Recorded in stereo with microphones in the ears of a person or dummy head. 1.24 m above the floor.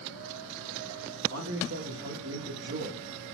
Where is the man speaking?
60° right (ahead or behind), 0.8 m.